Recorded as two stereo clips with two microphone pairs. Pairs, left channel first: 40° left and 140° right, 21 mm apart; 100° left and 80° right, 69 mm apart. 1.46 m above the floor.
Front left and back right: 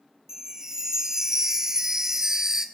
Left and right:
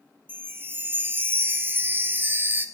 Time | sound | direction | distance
0.3 | a chime | 110° right | 1.1 m